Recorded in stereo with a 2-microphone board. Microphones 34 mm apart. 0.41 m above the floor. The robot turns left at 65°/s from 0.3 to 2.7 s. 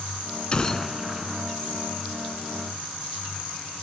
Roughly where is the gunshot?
Ahead left.